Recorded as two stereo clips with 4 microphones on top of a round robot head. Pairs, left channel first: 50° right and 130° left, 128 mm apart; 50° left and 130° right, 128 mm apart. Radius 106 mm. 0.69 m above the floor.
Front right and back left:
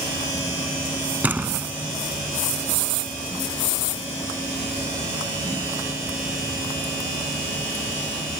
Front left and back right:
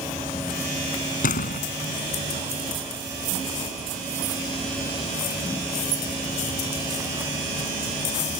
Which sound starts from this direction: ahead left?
A door slam, at 1.2 s.